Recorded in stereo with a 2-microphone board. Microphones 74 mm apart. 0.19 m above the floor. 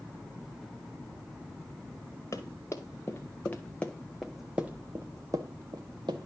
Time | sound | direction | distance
2.3 | running footsteps | 40° left (ahead or behind) | 1.8 m